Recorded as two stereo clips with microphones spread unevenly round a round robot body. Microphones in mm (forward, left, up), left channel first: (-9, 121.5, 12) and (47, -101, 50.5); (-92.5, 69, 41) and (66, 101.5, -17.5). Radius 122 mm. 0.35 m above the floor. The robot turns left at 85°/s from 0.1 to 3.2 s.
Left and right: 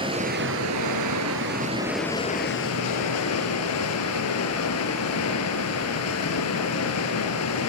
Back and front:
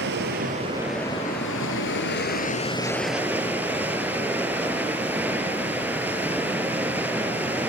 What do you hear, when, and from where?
0.0 s running water: 5° right, 3.5 m; by 7.7 s 90° left, 3.5 m